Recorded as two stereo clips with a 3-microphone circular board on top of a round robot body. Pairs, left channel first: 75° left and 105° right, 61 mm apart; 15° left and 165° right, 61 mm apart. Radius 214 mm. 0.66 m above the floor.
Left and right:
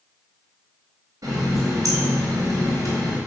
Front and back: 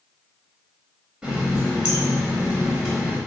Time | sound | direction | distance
1.2 | a running tap | 95° right | 1.2 m